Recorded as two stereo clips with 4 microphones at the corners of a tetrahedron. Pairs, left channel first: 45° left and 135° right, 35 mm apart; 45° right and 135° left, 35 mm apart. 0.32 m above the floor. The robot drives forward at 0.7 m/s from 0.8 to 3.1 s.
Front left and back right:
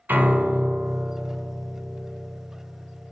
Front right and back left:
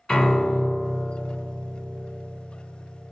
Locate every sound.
0.1 s a piano: 110° right, 0.8 m; by 3.1 s 160° right, 2 m